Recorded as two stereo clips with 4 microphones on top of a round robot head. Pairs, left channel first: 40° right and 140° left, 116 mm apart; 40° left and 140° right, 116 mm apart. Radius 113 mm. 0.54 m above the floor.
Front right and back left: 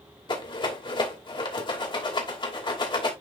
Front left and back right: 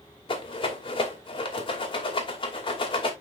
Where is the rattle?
Straight ahead, 2.5 m.